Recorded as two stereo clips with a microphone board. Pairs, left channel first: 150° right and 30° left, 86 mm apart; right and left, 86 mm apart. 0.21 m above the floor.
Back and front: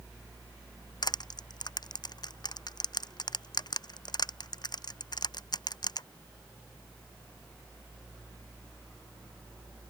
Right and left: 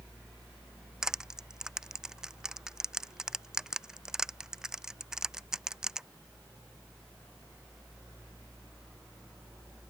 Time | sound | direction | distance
1.0 | crushing | 175° left | ?